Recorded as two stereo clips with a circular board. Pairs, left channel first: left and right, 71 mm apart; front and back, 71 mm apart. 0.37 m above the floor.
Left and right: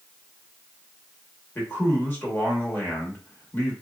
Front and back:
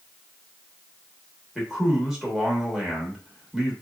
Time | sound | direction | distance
1.6 | a man speaking | 105° left | 0.9 m